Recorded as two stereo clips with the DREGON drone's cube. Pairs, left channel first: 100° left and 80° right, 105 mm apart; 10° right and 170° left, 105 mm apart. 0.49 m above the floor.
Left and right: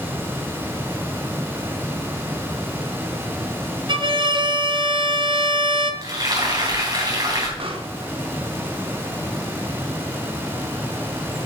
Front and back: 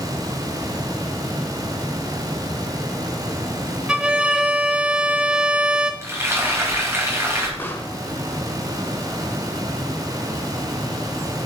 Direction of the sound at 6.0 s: 125° right.